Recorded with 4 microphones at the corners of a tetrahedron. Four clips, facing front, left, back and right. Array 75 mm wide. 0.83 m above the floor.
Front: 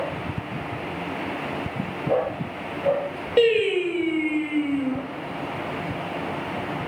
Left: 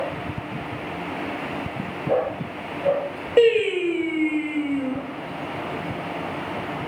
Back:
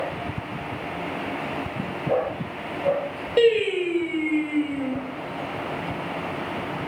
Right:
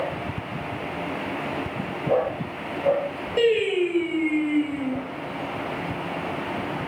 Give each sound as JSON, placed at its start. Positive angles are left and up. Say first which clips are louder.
{"t": 3.4, "sound": "singing", "louder": "left 3 dB, even", "azimuth_deg": 90, "distance_m": 0.6}